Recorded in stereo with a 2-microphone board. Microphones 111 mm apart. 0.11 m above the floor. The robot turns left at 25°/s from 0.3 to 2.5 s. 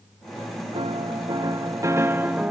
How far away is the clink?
No clink in this recording.